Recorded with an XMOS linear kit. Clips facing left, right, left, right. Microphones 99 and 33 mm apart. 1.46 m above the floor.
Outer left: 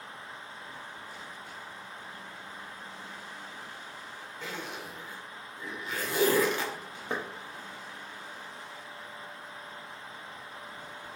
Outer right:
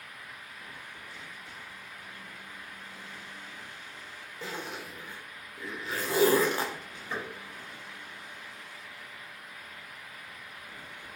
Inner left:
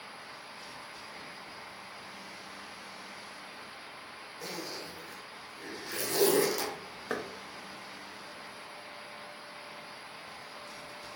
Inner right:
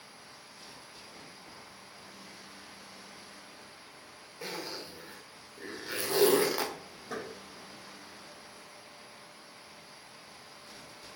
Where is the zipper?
35° right (ahead or behind), 0.8 m.